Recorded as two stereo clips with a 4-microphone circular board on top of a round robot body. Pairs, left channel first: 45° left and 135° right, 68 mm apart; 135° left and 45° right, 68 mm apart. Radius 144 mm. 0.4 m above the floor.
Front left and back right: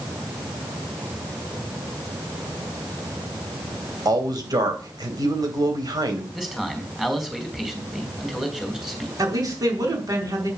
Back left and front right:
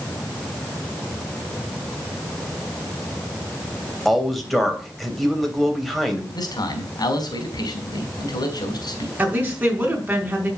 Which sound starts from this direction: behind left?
A man speaking, at 6.3 s.